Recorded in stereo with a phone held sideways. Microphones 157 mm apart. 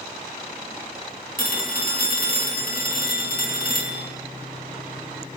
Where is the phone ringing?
65° left (ahead or behind), 1.4 m.